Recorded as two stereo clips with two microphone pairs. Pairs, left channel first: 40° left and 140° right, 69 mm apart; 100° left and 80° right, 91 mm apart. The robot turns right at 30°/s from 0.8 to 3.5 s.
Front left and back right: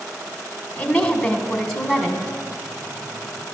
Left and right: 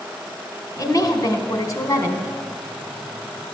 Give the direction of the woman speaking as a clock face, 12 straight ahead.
9 o'clock.